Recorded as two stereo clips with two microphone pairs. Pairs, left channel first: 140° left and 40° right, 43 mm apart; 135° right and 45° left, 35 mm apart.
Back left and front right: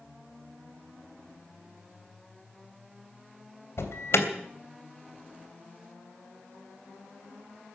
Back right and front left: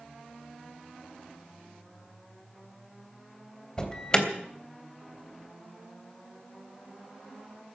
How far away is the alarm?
About 3 m.